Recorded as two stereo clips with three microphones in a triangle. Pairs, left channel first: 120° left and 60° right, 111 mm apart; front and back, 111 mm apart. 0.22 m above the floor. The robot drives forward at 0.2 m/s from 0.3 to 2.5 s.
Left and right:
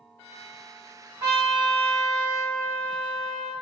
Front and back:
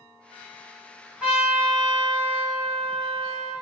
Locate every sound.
1.2 s a trumpet: 110° right, 1.7 m; by 3.5 s 125° right, 1.8 m